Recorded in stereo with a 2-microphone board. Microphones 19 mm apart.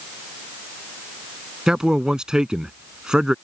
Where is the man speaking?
50° right (ahead or behind).